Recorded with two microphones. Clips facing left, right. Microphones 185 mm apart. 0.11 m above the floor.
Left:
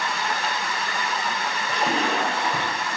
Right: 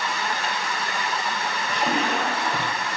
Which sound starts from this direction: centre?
A splash, at 1.7 s.